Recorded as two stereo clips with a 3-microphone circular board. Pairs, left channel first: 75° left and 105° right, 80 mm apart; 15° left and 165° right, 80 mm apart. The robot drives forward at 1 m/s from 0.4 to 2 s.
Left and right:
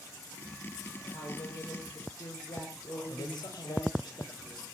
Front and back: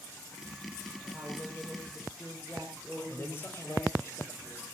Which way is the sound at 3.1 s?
70° left.